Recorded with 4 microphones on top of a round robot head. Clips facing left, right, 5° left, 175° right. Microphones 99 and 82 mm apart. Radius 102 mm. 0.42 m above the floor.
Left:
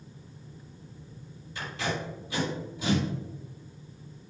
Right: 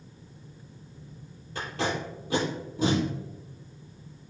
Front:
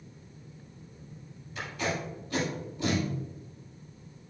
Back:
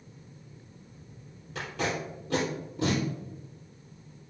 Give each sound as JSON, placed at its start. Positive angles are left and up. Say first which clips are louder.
{"t": 1.6, "sound": "tape being pulled", "louder": "right 3 dB, back 1 dB", "azimuth_deg": -140, "distance_m": 4.0}